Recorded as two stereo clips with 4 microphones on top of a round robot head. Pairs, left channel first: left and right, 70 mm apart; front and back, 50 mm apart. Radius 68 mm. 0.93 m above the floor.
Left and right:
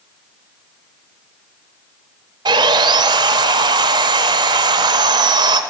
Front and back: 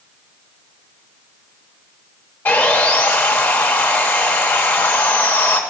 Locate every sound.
2.5 s sawing: 65° right, 0.9 m